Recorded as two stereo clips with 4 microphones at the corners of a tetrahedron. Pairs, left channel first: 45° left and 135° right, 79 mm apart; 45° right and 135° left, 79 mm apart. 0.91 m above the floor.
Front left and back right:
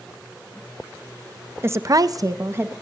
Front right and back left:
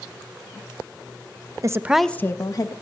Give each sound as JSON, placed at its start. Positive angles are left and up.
{"t": 1.6, "sound": "a woman speaking", "azimuth_deg": 170, "distance_m": 0.6}